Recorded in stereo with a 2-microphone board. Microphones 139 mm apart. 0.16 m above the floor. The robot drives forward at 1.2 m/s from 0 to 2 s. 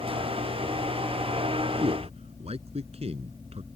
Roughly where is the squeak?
I don't hear a squeak.